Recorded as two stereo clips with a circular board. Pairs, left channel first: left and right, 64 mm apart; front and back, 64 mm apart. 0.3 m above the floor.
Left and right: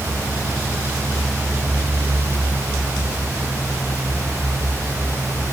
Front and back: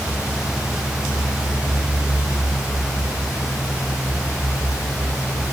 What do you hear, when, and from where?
Only background noise.